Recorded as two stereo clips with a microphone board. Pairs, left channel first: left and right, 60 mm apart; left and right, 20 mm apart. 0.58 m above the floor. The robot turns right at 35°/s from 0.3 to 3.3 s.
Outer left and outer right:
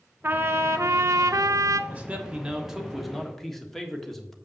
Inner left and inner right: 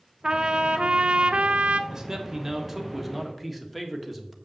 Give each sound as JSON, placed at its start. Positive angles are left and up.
{"t": 0.2, "sound": "a trumpet", "azimuth_deg": -140, "distance_m": 0.6}
{"t": 1.9, "sound": "a man speaking", "azimuth_deg": -45, "distance_m": 1.5}